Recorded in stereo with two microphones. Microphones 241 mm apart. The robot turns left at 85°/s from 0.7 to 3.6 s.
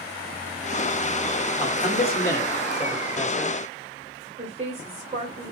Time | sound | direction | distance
1.6 | a man speaking | 25° left (ahead or behind) | 1.3 m
4.4 | a woman speaking | 25° right (ahead or behind) | 1.4 m